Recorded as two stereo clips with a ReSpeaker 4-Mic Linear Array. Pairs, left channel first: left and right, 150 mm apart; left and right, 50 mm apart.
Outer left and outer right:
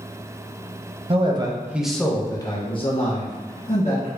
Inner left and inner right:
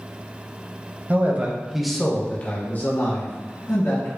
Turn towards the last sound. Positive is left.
turn(degrees=60)  # may be behind; listen again after turning